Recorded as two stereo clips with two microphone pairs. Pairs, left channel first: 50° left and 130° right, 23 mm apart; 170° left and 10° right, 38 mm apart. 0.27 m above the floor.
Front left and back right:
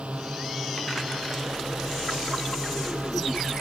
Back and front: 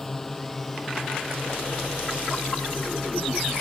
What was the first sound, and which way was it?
A drone, 110° right.